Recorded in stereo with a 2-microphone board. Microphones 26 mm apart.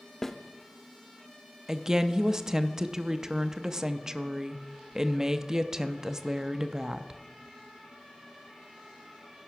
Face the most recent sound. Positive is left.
turn(degrees=-20)  # may be behind; listen again after turning